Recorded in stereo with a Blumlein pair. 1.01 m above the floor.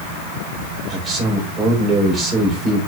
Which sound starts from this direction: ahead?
A man speaking, at 0.9 s.